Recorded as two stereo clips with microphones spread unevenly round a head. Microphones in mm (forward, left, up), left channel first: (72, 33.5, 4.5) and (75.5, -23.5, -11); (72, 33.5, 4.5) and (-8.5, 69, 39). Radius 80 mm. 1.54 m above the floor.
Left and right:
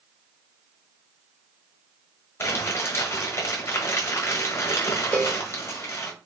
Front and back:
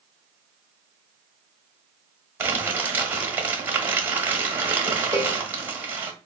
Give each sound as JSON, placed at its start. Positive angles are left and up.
{"t": 2.4, "sound": "crumpling", "azimuth_deg": 110, "distance_m": 1.0}
{"t": 5.1, "sound": "a cowbell", "azimuth_deg": -90, "distance_m": 2.0}